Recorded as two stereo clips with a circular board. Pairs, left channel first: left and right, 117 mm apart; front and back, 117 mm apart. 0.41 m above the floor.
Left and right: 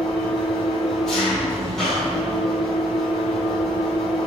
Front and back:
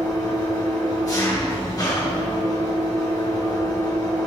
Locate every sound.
0.0 s an engine running: 10° left, 1.2 m